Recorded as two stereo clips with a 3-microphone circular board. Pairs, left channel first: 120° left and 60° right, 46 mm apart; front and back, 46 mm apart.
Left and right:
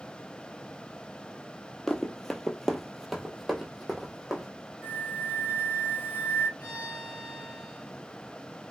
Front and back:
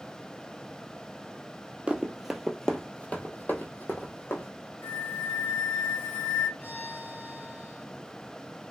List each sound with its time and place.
1.9 s running footsteps: 175° right, 0.7 m; by 4.5 s 20° left, 1.4 m
4.8 s a flute: 25° right, 1.0 m
6.6 s a violin: 60° left, 2.5 m